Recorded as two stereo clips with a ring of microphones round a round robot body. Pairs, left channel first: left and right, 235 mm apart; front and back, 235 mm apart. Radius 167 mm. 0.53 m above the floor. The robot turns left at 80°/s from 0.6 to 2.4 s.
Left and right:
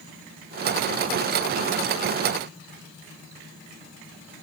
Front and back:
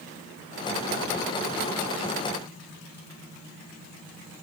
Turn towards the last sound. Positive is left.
No sound to turn to.